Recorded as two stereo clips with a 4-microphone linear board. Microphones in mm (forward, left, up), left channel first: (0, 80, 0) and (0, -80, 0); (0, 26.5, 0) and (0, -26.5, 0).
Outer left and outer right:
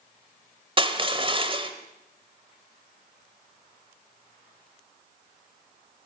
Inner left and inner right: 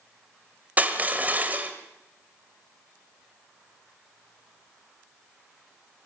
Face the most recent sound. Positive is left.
turn(degrees=-35)  # may be behind; listen again after turning